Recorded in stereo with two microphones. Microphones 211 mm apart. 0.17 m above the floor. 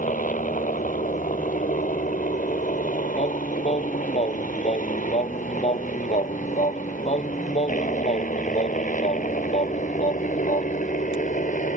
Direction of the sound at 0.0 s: 35° left (ahead or behind).